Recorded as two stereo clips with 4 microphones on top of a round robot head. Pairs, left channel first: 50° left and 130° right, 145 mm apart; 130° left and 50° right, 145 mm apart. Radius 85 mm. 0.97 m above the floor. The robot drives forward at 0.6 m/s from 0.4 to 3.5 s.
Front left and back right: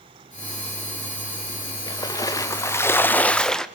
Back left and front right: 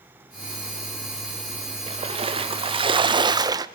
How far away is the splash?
About 1.6 m.